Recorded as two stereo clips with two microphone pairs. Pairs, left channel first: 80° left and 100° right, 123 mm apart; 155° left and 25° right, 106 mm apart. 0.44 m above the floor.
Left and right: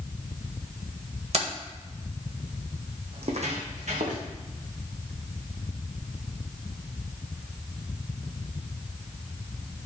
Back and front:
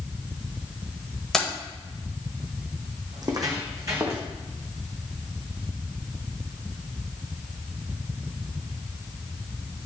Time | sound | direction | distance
1.3 | keys jangling | 115° right | 1.3 m
3.1 | footsteps | 70° right | 1.4 m